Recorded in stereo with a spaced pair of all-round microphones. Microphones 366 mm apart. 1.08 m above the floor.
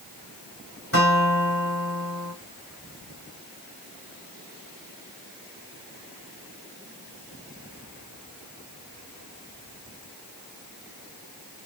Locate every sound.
0.9 s a guitar: 35° left (ahead or behind), 1.5 m